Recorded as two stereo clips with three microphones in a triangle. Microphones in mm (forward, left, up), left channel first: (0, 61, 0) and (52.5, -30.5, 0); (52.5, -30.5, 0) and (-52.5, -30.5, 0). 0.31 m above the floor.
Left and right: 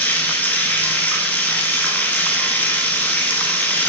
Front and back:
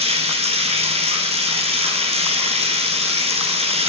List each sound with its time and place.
0.0 s running water: 165° right, 1.6 m